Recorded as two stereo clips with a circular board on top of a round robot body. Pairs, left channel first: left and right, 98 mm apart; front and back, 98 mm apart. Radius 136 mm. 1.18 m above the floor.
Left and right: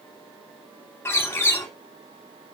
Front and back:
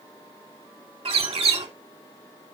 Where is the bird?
155° left, 2.5 m.